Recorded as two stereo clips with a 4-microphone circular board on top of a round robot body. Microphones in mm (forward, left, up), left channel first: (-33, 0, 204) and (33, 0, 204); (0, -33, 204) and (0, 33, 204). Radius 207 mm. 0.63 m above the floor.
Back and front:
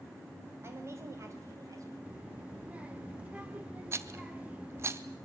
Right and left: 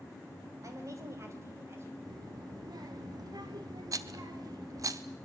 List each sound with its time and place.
0.6 s a woman speaking: 50° left, 5 m; by 1.9 s 35° left, 5.5 m
2.0 s a child speaking: 70° left, 1.7 m
3.9 s a rattle: 50° left, 0.7 m